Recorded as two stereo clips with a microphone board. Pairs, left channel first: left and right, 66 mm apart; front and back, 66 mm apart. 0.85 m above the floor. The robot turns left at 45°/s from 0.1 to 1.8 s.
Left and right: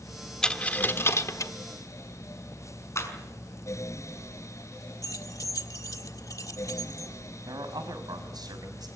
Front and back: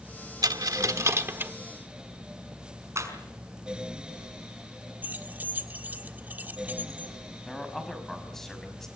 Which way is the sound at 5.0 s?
120° left.